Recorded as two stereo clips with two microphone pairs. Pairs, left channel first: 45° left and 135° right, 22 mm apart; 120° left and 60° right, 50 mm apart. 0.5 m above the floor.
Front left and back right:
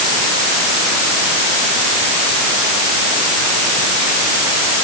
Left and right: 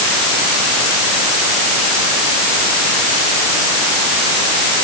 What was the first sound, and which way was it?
Only background noise.